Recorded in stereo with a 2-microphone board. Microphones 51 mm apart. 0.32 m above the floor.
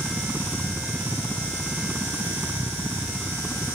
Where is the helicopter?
20° right (ahead or behind).